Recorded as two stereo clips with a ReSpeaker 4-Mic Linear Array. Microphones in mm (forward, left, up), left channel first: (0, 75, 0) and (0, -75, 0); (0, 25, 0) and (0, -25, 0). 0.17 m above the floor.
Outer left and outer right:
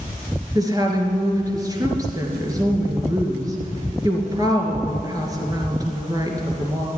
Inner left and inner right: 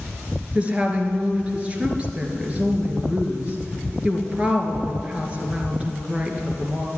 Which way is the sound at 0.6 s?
25° right (ahead or behind).